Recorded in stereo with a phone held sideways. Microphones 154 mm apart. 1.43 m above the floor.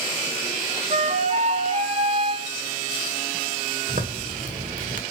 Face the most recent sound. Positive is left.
turn(degrees=-60)  # may be behind; listen again after turning